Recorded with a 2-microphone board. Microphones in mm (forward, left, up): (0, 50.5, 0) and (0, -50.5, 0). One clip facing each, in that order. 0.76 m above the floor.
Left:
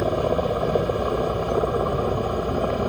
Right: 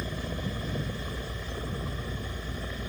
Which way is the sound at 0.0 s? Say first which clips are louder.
Left 14 dB; 65° left (ahead or behind).